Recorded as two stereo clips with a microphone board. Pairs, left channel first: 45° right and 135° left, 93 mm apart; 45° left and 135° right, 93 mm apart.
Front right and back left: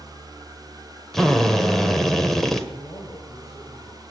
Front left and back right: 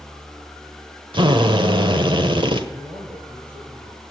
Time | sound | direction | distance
1.1 | a drill | 130° right | 1.3 m
2.7 | a man speaking | 90° right | 3 m